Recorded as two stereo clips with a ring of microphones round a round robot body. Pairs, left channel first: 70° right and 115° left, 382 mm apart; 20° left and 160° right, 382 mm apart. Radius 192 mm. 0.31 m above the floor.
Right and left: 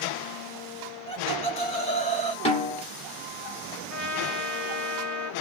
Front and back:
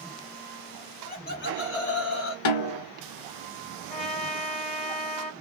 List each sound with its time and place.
1.1 s laughter: 15° right, 1.3 m; by 2.4 s straight ahead, 1.8 m
2.5 s a snare drum: 5° left, 1.0 m
3.9 s a trumpet: 65° right, 1.8 m